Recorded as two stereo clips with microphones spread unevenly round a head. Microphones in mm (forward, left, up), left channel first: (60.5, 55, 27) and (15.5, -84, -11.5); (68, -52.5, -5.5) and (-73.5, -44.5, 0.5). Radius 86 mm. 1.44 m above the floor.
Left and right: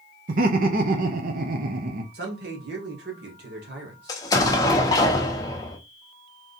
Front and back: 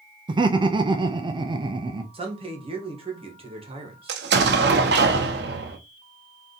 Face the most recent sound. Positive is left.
turn(degrees=145)